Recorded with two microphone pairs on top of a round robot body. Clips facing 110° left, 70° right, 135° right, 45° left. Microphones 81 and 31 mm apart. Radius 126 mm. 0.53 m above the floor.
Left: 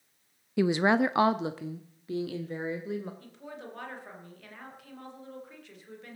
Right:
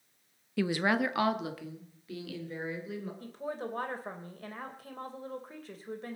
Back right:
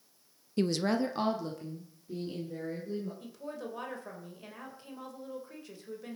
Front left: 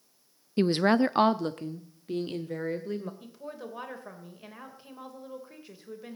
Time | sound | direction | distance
0.6 | a woman speaking | 25° left | 0.6 m
3.2 | a woman speaking | 30° right | 2.5 m